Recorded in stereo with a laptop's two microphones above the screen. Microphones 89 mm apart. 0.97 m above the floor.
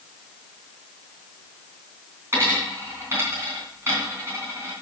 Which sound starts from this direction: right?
A dropped coin, at 2.3 s.